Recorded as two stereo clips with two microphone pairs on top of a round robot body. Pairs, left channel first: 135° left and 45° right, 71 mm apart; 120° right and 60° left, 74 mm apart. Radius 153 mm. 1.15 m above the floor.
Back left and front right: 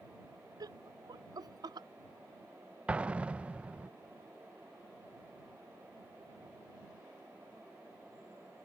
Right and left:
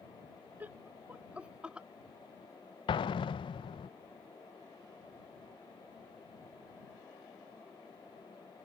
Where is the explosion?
120° right.